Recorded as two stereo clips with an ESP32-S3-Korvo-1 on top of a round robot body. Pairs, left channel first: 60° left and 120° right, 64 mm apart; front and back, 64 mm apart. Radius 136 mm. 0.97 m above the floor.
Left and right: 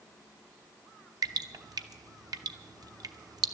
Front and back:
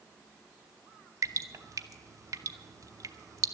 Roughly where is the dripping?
Behind right.